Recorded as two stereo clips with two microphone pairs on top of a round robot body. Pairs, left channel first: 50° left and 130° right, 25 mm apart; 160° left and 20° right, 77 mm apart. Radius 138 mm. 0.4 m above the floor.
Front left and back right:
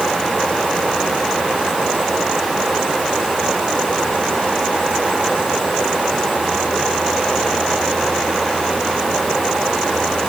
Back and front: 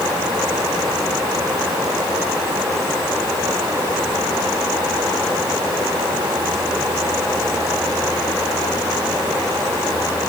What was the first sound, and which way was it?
Only background noise.